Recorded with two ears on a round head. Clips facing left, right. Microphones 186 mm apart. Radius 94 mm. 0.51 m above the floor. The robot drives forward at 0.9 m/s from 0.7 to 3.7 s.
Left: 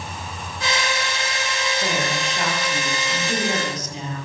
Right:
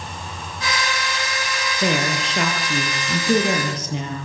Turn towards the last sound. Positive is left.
turn(degrees=-55)  # may be behind; listen again after turning